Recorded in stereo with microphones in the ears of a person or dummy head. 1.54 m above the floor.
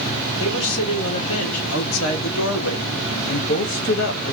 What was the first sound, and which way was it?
A woman speaking, 80° left.